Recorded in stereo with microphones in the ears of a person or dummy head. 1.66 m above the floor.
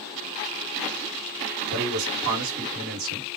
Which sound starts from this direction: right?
A man speaking, at 1.7 s.